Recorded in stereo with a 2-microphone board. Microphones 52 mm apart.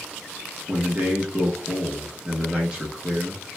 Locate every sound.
0.7 s a man speaking: 20° right (ahead or behind), 0.8 m